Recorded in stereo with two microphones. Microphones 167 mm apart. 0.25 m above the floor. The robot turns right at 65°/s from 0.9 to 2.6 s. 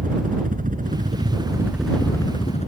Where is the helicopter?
65° right; by 2.7 s 50° left.